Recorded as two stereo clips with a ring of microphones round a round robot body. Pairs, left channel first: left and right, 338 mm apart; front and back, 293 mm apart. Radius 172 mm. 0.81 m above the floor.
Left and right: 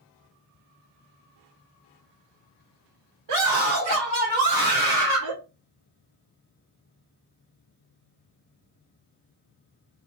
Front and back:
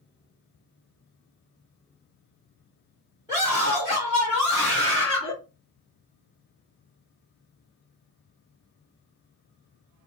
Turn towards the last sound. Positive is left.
turn(degrees=-55)